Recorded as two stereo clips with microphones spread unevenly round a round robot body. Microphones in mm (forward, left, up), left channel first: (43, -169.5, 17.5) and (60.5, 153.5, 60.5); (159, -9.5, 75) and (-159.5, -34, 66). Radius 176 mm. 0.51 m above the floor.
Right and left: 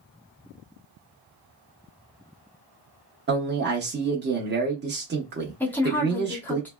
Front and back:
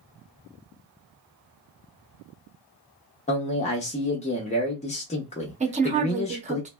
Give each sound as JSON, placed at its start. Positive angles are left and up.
{"t": 3.3, "sound": "a man speaking", "azimuth_deg": 50, "distance_m": 0.8}
{"t": 5.6, "sound": "a woman speaking", "azimuth_deg": -150, "distance_m": 0.9}